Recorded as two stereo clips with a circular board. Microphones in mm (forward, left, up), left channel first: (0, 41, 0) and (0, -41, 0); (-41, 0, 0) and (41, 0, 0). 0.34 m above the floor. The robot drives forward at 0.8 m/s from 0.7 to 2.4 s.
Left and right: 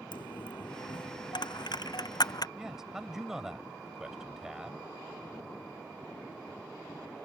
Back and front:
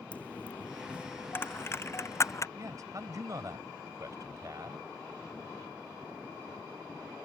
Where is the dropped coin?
105° left; by 2.5 s 125° left.